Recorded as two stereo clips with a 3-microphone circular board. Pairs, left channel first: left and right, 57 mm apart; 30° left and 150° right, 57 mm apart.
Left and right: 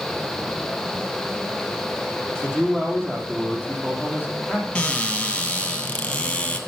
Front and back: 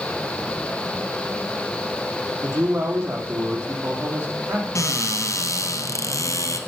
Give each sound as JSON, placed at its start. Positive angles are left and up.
{"t": 2.4, "sound": "a man speaking", "azimuth_deg": -145, "distance_m": 4.5}
{"t": 4.8, "sound": "a cupboard door", "azimuth_deg": 20, "distance_m": 2.0}